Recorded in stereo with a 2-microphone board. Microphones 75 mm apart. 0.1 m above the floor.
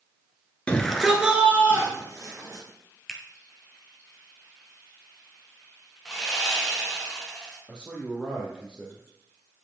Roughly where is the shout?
Centre.